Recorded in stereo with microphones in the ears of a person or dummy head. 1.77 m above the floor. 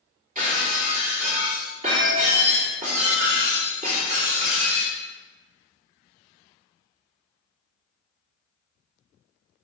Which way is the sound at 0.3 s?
45° right (ahead or behind).